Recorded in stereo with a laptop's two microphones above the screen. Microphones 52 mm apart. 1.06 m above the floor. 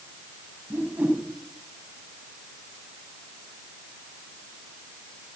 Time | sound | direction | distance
0.7 | a whoosh | 30° right (ahead or behind) | 5.5 m